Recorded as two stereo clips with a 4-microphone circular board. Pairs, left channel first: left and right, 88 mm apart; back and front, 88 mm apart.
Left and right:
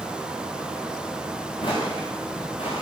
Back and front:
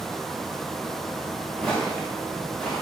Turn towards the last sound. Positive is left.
turn(degrees=95)